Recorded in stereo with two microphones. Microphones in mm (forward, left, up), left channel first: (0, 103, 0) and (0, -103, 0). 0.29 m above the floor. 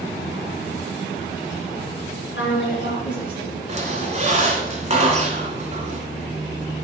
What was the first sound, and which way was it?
A woman speaking, 65° left (ahead or behind).